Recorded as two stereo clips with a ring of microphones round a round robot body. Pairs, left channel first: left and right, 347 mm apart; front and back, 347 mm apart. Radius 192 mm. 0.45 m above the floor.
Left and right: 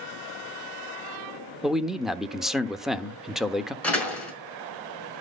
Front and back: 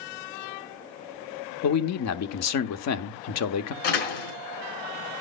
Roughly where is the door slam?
Ahead.